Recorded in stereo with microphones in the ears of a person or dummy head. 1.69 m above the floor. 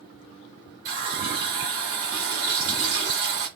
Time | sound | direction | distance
0.8 | a running tap | 40° right (ahead or behind) | 1.4 m